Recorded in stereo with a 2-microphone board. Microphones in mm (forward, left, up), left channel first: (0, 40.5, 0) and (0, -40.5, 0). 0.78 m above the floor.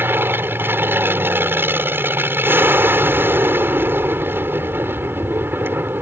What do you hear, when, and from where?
0.0 s an aircraft: 25° right (ahead or behind)